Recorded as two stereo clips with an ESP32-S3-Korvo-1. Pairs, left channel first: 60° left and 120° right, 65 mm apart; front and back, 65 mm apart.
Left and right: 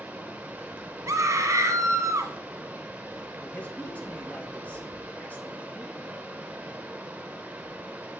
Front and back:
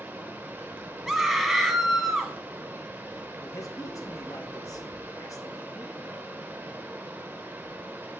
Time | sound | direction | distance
0.0 | running water | 165° right | 0.8 m
1.1 | a scream | 90° right | 1.2 m
3.4 | a man speaking | straight ahead | 1.3 m